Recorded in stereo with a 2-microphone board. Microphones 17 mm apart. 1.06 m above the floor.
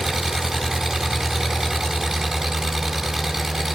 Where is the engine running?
25° right (ahead or behind), 5 m.